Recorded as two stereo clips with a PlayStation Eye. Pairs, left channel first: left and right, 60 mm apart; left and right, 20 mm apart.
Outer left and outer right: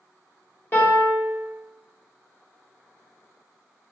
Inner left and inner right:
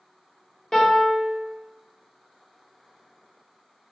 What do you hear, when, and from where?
0.7 s a piano: 35° left (ahead or behind), 1.0 m